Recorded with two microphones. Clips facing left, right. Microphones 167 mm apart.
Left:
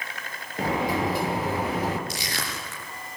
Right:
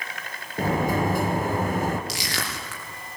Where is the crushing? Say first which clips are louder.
Right 1 dB; 80° right, 6.5 m.